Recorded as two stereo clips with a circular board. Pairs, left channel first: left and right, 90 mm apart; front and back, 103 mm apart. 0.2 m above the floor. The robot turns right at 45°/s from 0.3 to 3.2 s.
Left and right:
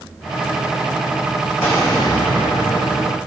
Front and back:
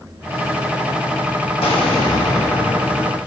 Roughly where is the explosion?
Ahead left.